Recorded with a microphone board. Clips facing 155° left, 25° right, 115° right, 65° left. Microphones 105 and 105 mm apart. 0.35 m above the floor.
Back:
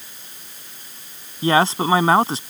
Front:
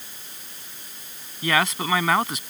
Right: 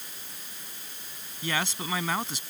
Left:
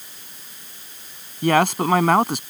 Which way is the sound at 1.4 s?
100° left.